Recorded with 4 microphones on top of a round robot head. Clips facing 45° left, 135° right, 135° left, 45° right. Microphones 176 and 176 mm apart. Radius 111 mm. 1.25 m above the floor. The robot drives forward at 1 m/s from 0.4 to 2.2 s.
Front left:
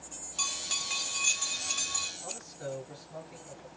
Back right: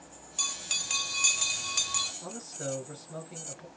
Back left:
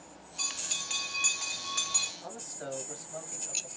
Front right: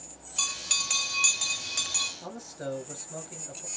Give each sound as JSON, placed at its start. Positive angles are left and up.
{"t": 0.4, "sound": "a bell", "azimuth_deg": -55, "distance_m": 1.7}
{"t": 2.2, "sound": "a man speaking", "azimuth_deg": -100, "distance_m": 7.0}